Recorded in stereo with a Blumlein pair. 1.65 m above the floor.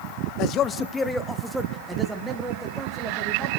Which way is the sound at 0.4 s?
40° left.